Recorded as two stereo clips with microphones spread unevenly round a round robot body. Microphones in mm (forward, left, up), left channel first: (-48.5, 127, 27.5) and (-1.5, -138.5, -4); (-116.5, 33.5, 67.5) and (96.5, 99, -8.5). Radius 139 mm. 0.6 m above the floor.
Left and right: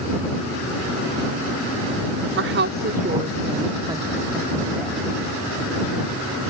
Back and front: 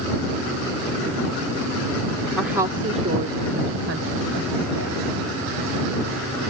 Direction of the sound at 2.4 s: 60° right.